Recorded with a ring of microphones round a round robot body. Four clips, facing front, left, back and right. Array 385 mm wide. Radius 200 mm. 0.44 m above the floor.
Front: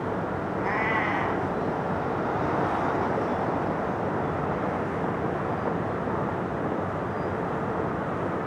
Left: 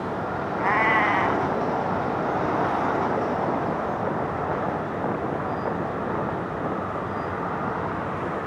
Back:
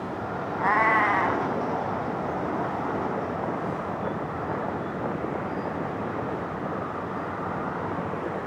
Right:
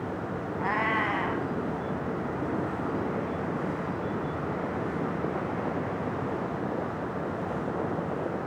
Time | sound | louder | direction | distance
0.6 | a cat meowing | left 7 dB, back 6 dB | 150° left | 2.5 m